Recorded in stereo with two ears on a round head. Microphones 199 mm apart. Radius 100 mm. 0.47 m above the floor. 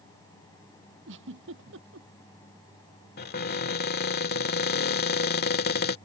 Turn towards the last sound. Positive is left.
turn(degrees=45)  # may be behind; listen again after turning